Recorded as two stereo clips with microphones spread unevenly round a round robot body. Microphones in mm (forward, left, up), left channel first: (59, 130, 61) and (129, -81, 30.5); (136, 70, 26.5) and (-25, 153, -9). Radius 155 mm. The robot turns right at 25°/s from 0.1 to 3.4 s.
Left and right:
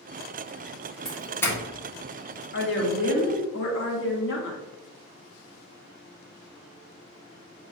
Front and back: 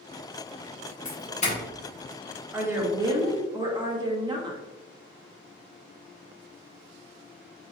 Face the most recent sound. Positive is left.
turn(degrees=110)